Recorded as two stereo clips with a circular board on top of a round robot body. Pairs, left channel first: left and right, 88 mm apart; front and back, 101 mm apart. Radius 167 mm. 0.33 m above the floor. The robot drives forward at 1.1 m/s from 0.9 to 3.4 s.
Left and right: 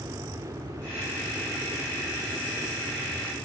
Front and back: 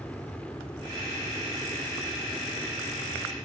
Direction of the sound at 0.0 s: 70° right.